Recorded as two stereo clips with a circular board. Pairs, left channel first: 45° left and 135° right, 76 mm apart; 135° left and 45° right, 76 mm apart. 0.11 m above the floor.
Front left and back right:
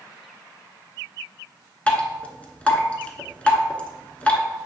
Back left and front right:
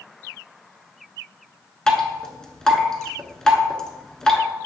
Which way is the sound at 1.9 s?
70° left.